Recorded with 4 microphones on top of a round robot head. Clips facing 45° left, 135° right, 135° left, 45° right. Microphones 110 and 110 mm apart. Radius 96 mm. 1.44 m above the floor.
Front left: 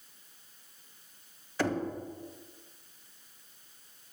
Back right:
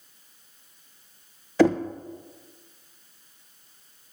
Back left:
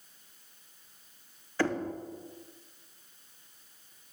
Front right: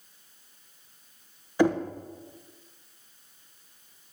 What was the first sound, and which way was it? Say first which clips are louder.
Knocking: back right 12 dB, front right 7 dB; 120° right.